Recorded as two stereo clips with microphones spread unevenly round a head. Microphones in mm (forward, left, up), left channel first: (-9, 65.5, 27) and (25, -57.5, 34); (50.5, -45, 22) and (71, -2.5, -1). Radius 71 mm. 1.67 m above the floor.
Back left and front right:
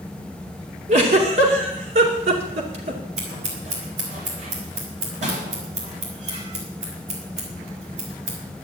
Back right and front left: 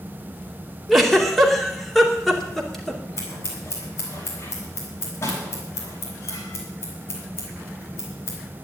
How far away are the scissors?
About 4 m.